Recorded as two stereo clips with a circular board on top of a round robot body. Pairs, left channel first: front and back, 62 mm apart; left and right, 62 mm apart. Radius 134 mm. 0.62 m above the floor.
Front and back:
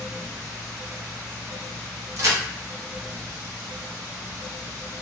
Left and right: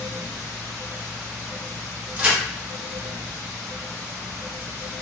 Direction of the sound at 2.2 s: 155° right.